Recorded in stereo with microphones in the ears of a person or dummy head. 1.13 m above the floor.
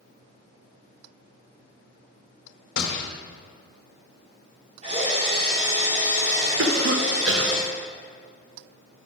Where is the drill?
40° right (ahead or behind), 3 m.